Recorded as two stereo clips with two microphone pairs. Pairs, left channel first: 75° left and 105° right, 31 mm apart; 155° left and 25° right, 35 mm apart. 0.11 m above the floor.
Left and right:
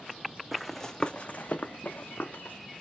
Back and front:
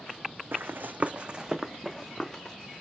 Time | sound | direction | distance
0.5 | running footsteps | 20° right | 0.5 m